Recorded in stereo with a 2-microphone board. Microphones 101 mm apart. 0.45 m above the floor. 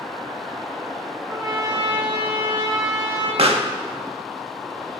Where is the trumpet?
40° right (ahead or behind), 3 m.